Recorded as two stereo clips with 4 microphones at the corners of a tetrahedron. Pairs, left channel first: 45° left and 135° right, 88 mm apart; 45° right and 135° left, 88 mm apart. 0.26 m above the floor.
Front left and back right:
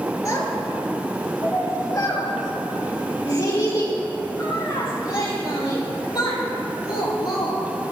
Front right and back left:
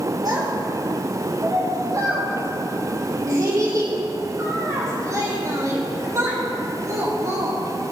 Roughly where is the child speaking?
Left.